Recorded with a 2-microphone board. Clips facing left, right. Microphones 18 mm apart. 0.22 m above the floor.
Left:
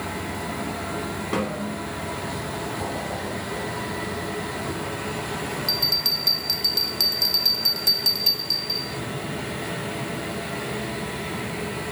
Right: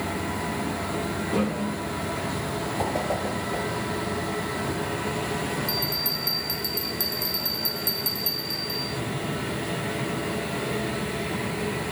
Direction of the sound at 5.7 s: 40° left (ahead or behind).